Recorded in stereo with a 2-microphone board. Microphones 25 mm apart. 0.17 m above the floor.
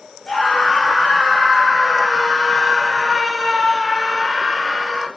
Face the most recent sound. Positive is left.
turn(degrees=-15)  # may be behind; listen again after turning